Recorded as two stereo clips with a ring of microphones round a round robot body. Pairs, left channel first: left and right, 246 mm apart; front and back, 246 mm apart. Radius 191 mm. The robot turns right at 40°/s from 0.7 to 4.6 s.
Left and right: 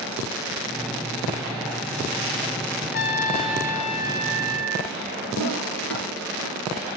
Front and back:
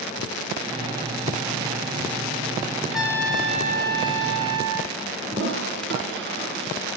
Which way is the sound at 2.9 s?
90° left.